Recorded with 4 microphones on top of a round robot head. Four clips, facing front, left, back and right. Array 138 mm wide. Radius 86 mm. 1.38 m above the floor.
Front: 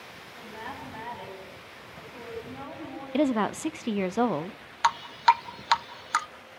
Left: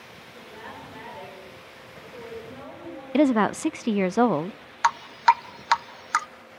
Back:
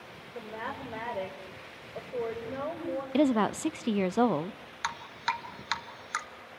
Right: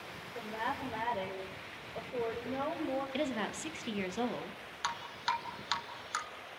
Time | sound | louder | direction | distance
0.3 | a woman speaking | right 5 dB, back 2 dB | 160° right | 9 m
3.1 | a woman speaking | left 15 dB, front 1 dB | 95° left | 0.6 m
4.8 | dripping | left 16 dB, front 12 dB | 55° left | 0.6 m